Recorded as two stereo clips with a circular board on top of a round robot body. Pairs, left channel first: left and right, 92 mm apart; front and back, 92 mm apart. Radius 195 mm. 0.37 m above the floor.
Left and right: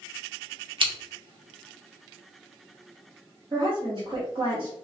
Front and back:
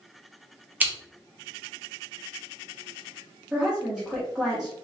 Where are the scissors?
110° right, 1.7 m.